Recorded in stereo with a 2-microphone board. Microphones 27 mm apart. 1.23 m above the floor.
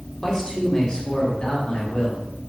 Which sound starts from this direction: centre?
A man speaking, at 0.2 s.